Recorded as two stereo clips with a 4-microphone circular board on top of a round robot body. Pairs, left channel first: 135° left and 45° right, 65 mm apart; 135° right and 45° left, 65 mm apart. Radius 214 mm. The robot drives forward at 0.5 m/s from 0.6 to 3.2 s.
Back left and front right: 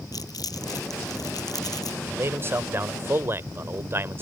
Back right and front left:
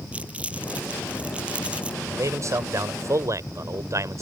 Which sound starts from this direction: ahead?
A man speaking, at 2.0 s.